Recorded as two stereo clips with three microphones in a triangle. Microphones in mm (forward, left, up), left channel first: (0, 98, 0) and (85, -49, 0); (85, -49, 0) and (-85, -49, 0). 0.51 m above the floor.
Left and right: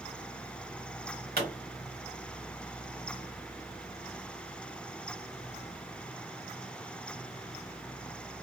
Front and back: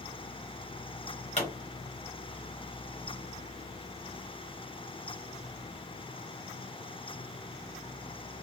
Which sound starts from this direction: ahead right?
A pop, at 1.4 s.